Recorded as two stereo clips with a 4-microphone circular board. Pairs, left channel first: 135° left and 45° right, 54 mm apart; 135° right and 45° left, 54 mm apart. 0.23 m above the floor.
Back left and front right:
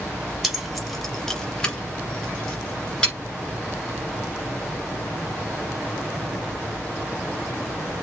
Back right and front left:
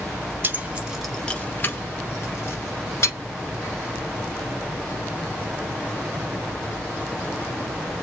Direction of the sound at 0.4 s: 35° left.